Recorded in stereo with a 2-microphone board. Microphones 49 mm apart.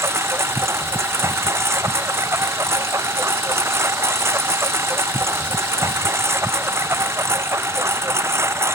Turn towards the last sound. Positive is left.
turn(degrees=-60)  # may be behind; listen again after turning